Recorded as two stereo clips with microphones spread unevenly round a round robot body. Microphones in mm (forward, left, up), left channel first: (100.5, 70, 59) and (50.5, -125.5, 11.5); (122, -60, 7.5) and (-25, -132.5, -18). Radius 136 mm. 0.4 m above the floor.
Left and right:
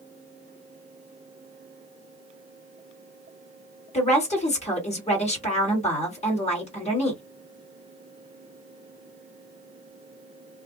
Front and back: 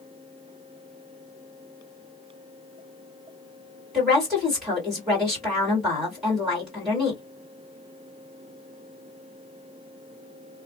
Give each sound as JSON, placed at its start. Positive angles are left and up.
{"t": 3.9, "sound": "a woman speaking", "azimuth_deg": 135, "distance_m": 1.6}